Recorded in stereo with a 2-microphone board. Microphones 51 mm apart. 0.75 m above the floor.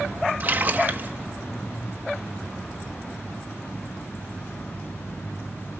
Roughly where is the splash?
Right.